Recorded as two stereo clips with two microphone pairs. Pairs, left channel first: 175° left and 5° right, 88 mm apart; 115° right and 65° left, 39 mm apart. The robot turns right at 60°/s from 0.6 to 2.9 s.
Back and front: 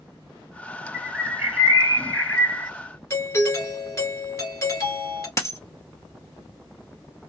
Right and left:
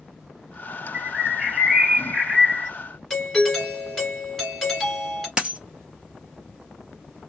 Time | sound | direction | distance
0.9 | a bird | 15° left | 1.6 m
3.1 | a doorbell | 165° left | 1.7 m
5.4 | a dropped coin | 125° left | 1.0 m